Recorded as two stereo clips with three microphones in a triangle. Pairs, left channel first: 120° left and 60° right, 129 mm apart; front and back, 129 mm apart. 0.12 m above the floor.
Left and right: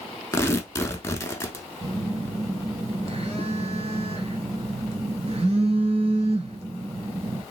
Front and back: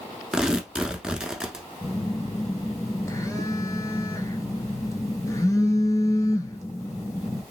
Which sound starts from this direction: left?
Tearing paper, at 0.3 s.